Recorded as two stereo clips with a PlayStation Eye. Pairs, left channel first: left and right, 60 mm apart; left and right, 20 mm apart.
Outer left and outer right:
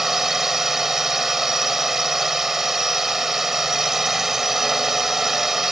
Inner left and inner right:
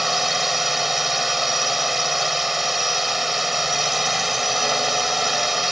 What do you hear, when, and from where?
0.0 s a drone: 5° right (ahead or behind)